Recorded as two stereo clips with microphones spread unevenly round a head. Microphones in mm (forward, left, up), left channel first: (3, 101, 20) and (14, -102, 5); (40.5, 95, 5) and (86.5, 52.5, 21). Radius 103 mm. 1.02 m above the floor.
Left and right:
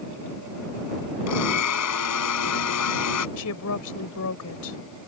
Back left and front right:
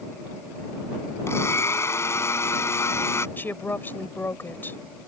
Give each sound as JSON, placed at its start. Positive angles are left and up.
{"t": 1.3, "sound": "a blender", "azimuth_deg": 90}
{"t": 3.4, "sound": "a woman speaking", "azimuth_deg": 80}